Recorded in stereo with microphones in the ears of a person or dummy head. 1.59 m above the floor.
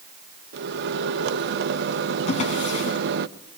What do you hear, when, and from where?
0.5 s a microwave: 65° right (ahead or behind), 1.2 m
2.3 s a drawer: 45° left (ahead or behind), 6 m